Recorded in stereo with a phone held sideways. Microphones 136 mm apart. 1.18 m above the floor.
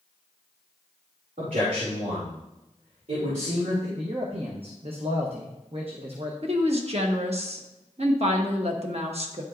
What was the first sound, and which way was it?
A man speaking, 75° right (ahead or behind).